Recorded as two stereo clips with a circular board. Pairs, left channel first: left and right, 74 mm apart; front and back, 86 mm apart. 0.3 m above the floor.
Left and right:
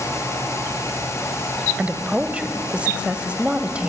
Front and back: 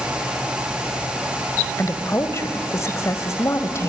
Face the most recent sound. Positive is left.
turn(degrees=-25)